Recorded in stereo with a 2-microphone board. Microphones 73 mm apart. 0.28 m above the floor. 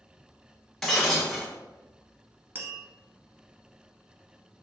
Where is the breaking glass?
5° left (ahead or behind), 1.3 m.